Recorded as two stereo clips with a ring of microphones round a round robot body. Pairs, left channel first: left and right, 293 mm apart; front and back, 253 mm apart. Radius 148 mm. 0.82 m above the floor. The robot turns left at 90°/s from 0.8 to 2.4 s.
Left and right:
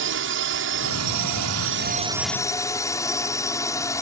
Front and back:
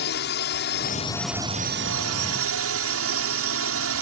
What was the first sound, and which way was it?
A drone, 50° right.